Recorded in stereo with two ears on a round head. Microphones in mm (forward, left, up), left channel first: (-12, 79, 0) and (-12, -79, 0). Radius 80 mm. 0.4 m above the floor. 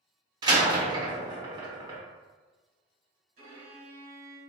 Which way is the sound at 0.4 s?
25° right (ahead or behind).